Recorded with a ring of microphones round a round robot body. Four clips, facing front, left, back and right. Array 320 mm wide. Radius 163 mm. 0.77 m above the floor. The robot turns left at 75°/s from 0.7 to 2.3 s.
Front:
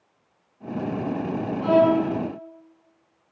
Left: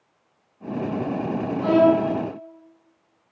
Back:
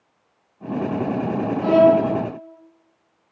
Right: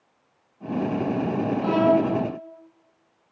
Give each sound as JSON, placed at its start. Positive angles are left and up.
{"t": 1.6, "sound": "a violin", "azimuth_deg": 110, "distance_m": 8.0}